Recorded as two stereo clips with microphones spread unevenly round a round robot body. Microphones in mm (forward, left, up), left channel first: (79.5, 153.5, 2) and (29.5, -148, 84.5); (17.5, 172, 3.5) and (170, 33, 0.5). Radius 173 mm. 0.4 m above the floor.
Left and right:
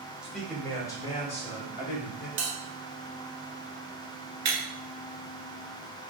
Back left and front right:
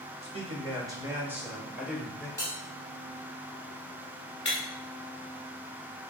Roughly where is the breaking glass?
Behind.